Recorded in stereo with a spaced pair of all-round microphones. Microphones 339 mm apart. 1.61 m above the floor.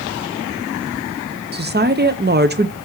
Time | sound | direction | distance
1.5 | a woman speaking | 30° right (ahead or behind) | 0.6 m